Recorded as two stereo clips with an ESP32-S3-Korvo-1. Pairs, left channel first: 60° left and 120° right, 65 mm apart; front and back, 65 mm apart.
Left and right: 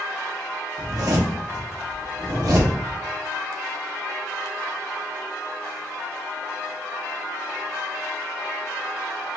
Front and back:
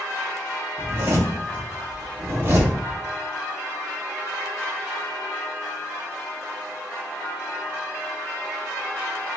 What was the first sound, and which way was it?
A zipper, 130° right.